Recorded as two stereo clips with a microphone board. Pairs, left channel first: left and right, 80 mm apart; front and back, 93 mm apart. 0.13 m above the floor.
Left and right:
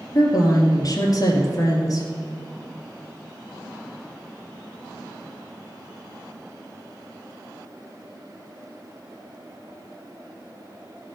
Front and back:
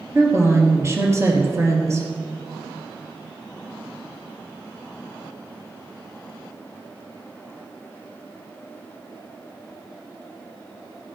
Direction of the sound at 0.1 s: 125° left.